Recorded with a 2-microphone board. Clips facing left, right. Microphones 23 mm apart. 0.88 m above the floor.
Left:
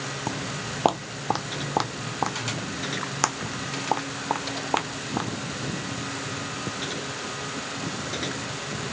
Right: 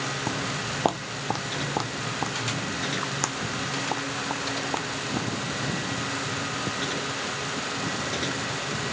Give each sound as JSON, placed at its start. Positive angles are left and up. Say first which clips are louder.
{"t": 0.3, "sound": "footsteps", "louder": "right 2 dB", "side_deg": 0}